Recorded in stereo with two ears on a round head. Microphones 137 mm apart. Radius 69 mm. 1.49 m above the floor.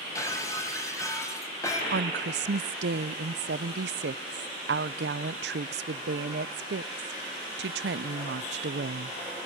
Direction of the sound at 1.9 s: 80° right.